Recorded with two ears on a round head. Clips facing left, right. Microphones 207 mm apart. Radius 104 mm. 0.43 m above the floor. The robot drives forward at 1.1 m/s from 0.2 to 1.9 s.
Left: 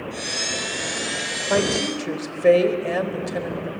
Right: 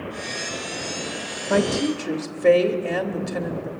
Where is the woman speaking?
Centre (ahead or behind), 1.3 m.